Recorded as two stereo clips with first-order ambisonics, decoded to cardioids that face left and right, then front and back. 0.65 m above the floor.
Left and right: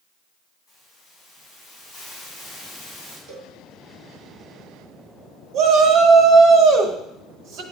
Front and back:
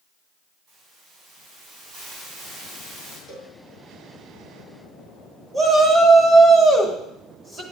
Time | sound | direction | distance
0.7 | a hiss | 155° left | 4 m
3.3 | a cowbell | 130° right | 4.5 m
5.5 | a shout | 120° right | 1.4 m